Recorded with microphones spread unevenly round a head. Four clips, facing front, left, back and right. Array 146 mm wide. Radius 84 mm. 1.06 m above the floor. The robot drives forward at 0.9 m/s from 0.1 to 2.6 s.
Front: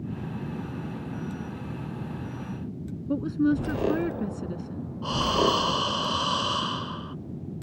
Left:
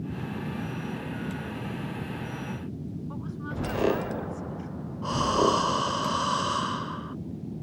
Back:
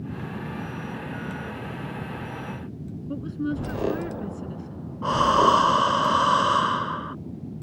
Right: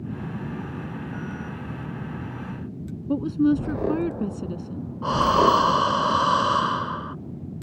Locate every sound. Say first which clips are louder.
3.1 s a woman speaking: right 16 dB, front 5 dB; 65° right
5.0 s breathing: right 5 dB, back 6 dB; 145° right